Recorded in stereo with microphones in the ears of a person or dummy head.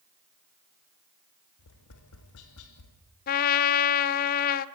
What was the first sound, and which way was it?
Tapping, 75° left (ahead or behind).